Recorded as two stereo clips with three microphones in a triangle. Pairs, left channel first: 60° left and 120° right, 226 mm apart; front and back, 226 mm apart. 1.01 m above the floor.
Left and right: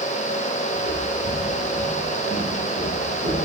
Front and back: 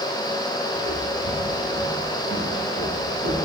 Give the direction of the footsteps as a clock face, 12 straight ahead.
7 o'clock.